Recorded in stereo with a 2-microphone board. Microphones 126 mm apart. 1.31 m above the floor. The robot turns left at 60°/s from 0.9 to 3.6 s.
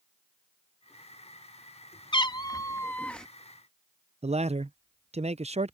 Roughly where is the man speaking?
Right.